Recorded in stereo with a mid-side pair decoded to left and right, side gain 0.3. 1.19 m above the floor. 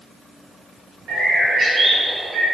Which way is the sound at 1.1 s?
65° right.